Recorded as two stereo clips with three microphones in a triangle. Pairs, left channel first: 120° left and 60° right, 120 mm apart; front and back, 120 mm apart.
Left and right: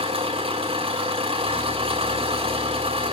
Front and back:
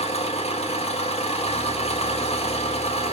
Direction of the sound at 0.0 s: 25° right.